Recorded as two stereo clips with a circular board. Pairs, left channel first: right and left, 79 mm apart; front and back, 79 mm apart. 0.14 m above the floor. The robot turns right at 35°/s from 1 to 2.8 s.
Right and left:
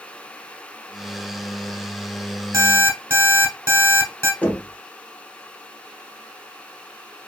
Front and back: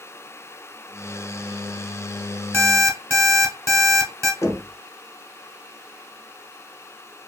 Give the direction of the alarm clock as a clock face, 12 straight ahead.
8 o'clock.